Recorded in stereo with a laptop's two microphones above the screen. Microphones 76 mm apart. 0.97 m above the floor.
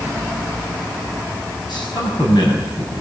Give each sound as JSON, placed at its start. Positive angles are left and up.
{"t": 1.7, "sound": "a man speaking", "side_deg": 75, "distance_m": 5.5}